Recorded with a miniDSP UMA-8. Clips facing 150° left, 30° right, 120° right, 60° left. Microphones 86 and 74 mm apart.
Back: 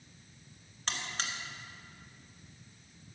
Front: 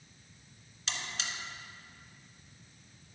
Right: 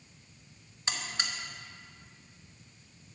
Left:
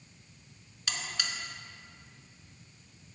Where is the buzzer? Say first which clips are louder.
Back 2 dB, right 1 dB; 175° right, 1.1 m.